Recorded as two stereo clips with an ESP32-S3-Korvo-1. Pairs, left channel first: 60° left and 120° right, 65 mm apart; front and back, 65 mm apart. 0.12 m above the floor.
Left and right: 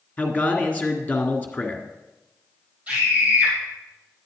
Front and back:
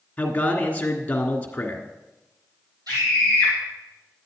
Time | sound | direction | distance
0.2 | a man speaking | 40° left | 1.6 m
2.9 | a scream | 175° left | 3 m